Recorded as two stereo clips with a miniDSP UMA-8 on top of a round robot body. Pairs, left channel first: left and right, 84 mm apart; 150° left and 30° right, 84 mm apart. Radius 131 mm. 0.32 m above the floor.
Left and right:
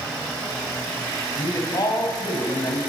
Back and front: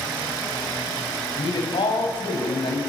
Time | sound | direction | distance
1.4 | a man speaking | 135° left | 4 m